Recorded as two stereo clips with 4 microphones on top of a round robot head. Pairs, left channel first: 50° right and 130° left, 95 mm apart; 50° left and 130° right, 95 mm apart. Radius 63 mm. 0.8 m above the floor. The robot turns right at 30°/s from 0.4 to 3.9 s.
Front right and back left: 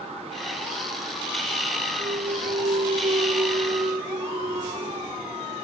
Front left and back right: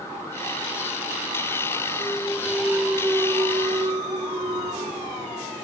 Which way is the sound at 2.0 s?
120° left.